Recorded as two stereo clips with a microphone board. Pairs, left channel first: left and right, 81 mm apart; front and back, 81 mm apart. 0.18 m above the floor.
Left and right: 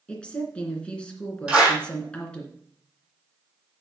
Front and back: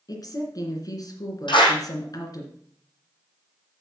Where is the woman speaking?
15° left, 2.5 m.